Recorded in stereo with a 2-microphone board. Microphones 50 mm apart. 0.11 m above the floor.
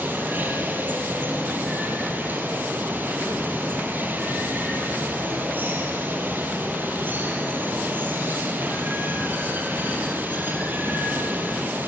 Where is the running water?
40° right (ahead or behind), 3 m.